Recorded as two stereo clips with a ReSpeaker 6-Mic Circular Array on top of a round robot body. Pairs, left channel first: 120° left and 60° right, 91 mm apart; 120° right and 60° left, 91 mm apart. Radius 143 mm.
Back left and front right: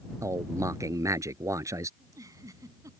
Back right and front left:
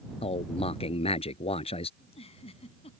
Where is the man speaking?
115° right.